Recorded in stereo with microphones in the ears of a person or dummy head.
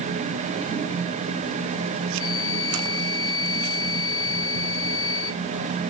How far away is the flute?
About 3 m.